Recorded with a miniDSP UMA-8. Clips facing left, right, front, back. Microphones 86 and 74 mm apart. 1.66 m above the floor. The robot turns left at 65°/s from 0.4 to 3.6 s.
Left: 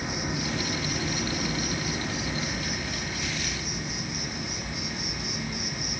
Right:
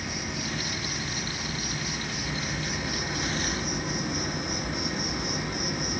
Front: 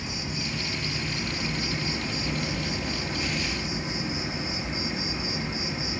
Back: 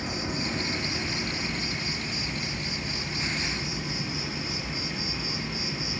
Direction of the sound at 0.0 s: 150° left.